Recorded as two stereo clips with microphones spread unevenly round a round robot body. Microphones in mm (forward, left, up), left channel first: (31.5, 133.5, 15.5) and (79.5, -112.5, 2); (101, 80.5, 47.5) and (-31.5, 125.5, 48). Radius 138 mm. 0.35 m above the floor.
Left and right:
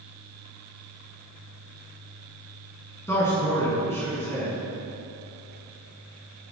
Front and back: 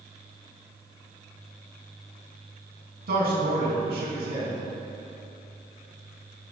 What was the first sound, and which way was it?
A man speaking, straight behind.